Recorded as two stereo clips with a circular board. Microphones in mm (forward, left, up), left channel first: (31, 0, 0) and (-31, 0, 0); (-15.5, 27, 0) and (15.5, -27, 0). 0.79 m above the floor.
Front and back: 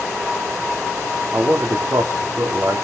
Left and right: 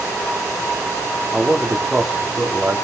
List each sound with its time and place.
1.3 s a man speaking: 140° right, 2 m